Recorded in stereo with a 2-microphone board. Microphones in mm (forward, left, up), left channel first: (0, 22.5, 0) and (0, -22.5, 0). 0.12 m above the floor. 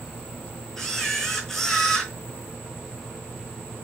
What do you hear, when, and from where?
0.8 s a camera shutter: 10° left (ahead or behind), 0.8 m